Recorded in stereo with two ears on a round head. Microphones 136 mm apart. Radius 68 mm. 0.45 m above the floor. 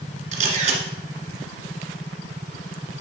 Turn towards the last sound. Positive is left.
turn(degrees=-50)  # may be behind; listen again after turning